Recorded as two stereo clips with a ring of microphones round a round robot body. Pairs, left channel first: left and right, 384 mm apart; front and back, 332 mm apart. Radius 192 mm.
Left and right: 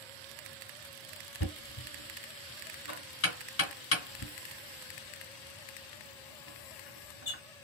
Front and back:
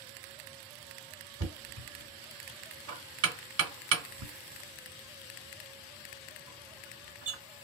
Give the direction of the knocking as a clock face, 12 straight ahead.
7 o'clock.